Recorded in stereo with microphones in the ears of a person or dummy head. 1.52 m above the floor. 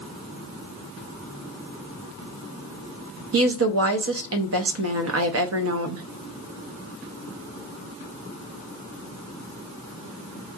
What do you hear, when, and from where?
3.3 s a woman speaking: 65° right (ahead or behind), 0.6 m